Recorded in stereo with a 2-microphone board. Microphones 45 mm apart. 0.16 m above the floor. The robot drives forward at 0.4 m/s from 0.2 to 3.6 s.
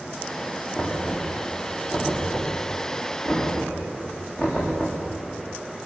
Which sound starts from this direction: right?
Knocking, at 0.8 s.